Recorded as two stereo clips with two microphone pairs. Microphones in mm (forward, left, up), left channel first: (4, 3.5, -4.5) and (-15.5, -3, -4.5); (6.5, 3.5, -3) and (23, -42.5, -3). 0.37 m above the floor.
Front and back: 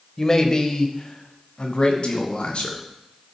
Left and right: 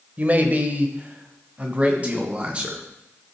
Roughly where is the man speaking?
Ahead right.